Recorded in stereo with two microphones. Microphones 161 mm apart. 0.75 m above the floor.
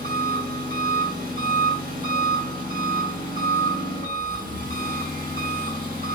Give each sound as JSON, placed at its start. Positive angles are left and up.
{"t": 0.0, "sound": "an engine running", "side_deg": -60, "distance_m": 0.9}